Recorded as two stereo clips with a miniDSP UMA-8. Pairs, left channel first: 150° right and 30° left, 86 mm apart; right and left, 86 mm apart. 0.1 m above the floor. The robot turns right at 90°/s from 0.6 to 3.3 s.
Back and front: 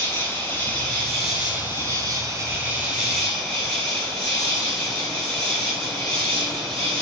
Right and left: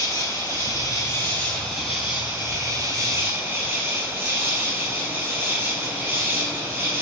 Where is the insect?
110° right, 1.5 m; by 7.0 s 130° left, 1.5 m.